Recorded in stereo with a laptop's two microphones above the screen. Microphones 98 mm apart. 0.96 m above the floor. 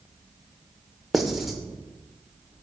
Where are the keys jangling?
No keys jangling in this recording.